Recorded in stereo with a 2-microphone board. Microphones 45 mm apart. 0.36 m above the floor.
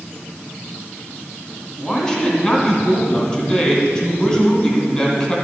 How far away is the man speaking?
About 2.5 m.